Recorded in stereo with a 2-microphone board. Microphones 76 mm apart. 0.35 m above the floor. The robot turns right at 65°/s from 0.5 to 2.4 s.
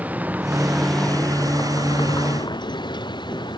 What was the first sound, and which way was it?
A vehicle, 20° right (ahead or behind).